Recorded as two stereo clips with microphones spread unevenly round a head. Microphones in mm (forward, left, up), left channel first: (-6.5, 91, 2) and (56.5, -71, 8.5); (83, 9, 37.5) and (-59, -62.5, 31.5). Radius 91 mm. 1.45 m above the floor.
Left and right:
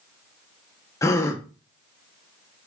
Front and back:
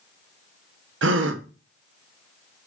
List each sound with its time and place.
1.0 s a gasp: 175° right, 0.8 m